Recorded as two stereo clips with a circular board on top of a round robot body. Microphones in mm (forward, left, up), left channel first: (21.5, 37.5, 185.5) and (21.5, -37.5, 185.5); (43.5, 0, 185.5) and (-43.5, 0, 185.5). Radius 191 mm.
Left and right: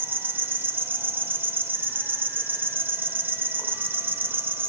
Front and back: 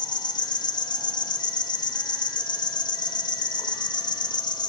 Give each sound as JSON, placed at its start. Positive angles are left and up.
{"t": 0.0, "sound": "an insect", "azimuth_deg": -30, "distance_m": 0.9}